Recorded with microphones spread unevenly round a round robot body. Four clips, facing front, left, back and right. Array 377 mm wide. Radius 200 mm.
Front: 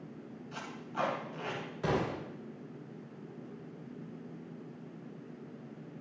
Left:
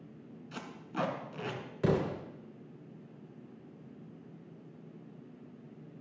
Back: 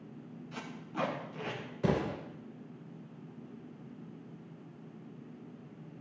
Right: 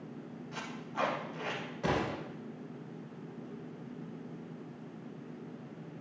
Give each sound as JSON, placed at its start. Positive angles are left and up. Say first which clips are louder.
{"t": 0.5, "sound": "tape being pulled", "louder": "even, front 1 dB", "azimuth_deg": 115, "distance_m": 2.0}
{"t": 1.8, "sound": "an explosion", "louder": "left 2 dB, back 1 dB", "azimuth_deg": 110, "distance_m": 2.5}